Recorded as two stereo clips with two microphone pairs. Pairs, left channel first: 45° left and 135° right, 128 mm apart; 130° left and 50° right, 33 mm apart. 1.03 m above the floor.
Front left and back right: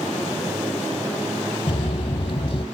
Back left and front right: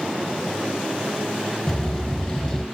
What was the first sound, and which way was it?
Footsteps, 70° left.